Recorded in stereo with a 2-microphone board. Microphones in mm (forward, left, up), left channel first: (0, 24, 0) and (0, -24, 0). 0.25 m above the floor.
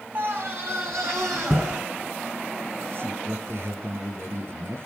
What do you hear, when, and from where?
0.1 s a scream: 40° right (ahead or behind), 1.6 m; by 1.8 s 60° right (ahead or behind), 4 m
2.9 s a man speaking: 55° right (ahead or behind), 4 m